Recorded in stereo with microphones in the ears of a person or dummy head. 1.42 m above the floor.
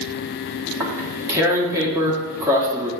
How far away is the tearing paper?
About 1.5 m.